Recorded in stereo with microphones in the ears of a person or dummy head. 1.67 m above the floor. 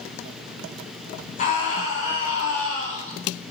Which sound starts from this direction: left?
A scream, at 1.4 s.